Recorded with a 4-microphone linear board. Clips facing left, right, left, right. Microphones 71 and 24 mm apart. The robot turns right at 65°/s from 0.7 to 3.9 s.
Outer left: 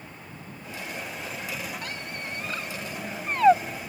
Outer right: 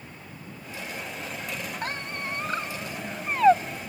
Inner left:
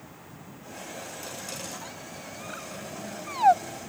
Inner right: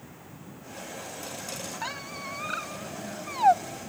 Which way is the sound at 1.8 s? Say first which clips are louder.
Outer right 3 dB, inner right 5 dB; 40° right (ahead or behind).